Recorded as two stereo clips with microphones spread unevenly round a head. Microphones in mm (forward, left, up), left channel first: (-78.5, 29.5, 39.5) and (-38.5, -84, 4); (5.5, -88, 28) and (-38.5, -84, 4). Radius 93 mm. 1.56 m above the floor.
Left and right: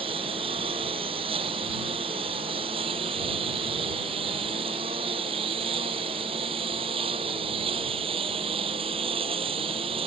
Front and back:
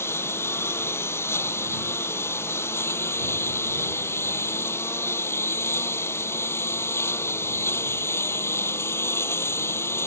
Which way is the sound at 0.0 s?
5° right.